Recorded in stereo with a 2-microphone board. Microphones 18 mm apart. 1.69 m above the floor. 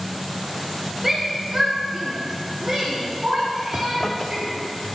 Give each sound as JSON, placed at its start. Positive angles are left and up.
{"t": 1.0, "sound": "a shout", "side_deg": -15, "distance_m": 1.0}
{"t": 3.7, "sound": "a zipper", "side_deg": 30, "distance_m": 0.6}